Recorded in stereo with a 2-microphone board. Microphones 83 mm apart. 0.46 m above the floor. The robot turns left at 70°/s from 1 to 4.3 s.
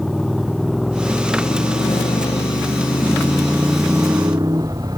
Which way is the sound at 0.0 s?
Straight behind.